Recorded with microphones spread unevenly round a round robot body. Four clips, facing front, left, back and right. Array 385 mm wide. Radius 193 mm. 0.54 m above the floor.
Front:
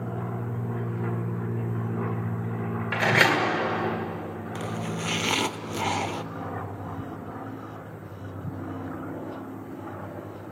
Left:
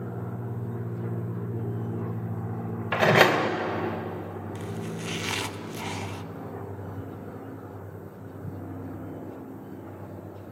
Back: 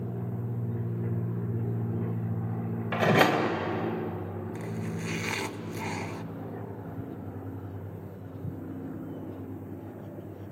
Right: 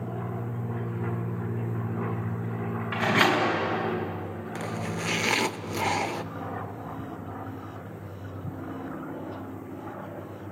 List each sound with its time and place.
2.9 s a door slam: 95° left, 2.0 m
4.5 s chopping: 40° right, 0.7 m